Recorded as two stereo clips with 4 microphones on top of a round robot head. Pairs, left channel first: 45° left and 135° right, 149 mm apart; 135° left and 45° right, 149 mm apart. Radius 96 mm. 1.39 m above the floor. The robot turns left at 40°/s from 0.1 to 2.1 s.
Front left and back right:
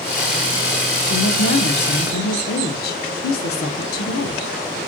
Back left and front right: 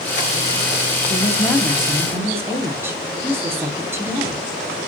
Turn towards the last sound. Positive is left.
turn(degrees=30)